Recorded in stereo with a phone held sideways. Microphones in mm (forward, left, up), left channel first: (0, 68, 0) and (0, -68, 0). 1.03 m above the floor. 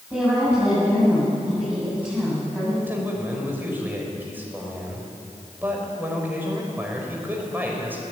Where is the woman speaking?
10° right (ahead or behind), 8.5 m.